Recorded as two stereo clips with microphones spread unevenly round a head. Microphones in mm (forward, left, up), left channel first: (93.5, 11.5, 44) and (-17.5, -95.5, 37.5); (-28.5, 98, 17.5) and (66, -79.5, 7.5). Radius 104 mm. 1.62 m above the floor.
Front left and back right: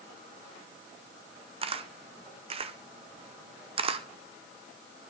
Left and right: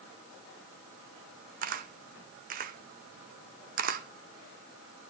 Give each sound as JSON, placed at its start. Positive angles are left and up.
{"t": 1.6, "sound": "a camera shutter", "azimuth_deg": -100, "distance_m": 0.7}